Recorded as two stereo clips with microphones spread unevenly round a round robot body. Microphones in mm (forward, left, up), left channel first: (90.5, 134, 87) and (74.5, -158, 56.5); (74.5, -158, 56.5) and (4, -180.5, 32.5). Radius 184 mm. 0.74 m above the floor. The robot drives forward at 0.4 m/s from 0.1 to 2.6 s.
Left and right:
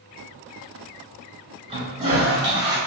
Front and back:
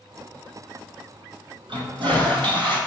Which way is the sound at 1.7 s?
170° right.